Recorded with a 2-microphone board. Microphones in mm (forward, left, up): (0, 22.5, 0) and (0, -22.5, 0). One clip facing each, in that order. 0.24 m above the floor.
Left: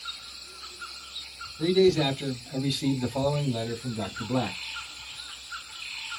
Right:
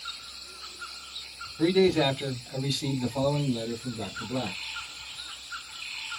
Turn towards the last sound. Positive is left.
turn(degrees=50)  # may be behind; listen again after turning